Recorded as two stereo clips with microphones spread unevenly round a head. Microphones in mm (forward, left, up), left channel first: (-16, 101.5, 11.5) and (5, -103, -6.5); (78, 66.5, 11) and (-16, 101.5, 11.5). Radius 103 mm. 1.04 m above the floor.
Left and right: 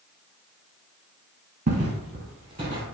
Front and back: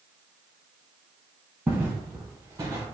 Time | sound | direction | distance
1.7 | footsteps | 125° right | 1.3 m